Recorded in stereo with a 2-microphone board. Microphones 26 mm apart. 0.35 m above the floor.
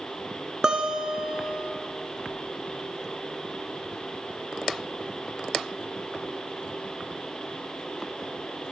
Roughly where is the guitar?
Right.